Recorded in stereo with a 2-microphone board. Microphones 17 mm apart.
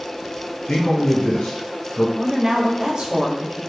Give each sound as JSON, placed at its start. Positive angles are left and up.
{"t": 0.7, "sound": "a man speaking", "side_deg": 80, "distance_m": 1.5}
{"t": 2.2, "sound": "a woman speaking", "side_deg": -40, "distance_m": 0.9}